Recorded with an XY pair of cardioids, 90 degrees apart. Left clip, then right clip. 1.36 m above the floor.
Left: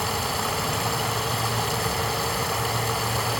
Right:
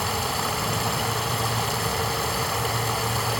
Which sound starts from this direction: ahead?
Running water, at 0.0 s.